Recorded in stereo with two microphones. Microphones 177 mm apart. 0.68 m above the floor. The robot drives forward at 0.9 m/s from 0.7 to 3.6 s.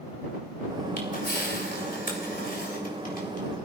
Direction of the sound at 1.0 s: 70° left (ahead or behind).